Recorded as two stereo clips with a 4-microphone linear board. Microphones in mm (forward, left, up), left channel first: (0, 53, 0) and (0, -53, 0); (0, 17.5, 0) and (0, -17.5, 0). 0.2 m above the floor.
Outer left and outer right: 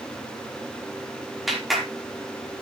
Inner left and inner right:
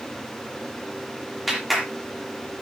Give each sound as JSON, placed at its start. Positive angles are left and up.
{"t": 1.5, "sound": "a clap", "side_deg": 0, "distance_m": 5.0}